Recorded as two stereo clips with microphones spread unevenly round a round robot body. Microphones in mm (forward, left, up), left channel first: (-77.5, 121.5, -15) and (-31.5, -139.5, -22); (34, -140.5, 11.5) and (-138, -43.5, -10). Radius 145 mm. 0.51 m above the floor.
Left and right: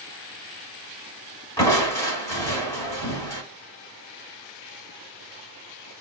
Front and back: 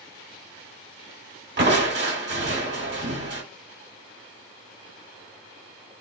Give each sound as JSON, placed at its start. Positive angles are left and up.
{"t": 1.6, "sound": "crushing", "azimuth_deg": 180, "distance_m": 2.0}